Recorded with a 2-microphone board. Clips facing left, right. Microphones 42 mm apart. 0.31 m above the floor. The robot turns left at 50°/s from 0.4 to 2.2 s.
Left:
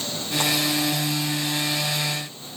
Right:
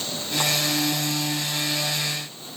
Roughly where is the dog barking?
I don't hear a dog barking.